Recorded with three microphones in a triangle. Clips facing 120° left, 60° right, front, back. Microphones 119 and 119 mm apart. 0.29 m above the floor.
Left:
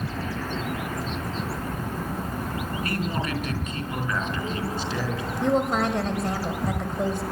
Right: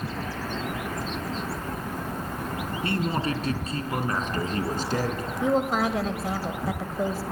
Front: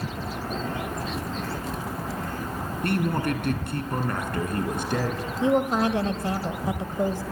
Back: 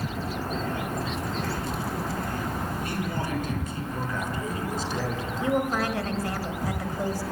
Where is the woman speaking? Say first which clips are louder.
Left 1 dB, front 4 dB; 25° left, 1.4 m.